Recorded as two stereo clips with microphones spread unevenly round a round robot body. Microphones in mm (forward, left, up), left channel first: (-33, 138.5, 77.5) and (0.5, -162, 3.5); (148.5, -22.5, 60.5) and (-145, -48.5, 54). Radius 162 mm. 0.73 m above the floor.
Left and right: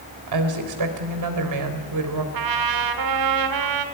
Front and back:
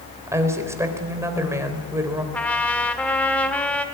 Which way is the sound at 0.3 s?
95° right.